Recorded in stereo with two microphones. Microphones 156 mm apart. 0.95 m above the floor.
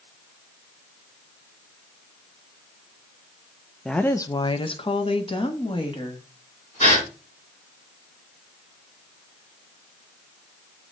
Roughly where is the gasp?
Left.